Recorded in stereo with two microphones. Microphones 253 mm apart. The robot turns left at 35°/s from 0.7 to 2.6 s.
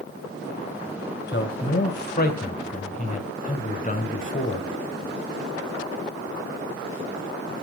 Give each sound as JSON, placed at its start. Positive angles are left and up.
{"t": 1.3, "sound": "a man speaking", "azimuth_deg": 90, "distance_m": 1.8}